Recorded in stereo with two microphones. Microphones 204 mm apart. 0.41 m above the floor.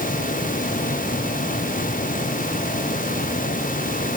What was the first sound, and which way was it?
Only background noise.